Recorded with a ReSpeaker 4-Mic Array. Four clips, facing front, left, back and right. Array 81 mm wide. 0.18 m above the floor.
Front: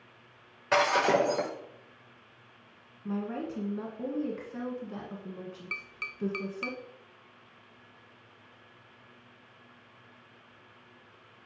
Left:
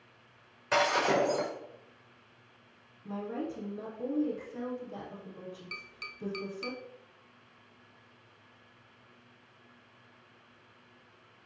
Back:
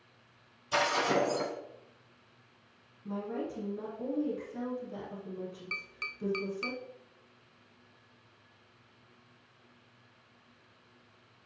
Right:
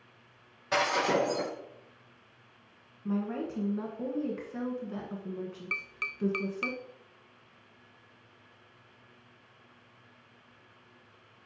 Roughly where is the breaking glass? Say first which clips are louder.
Left 1 dB, front 4 dB; ahead.